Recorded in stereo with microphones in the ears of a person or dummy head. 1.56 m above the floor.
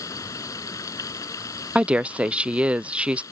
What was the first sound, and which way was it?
Running water, 20° left (ahead or behind).